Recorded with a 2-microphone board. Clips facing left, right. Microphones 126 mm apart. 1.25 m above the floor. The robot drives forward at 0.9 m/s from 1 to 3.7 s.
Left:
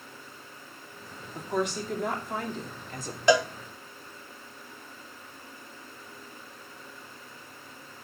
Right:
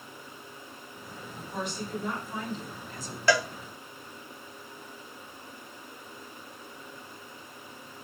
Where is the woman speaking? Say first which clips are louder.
Left 6 dB; 90° left, 2.5 m; by 3.2 s 55° left (ahead or behind), 3 m.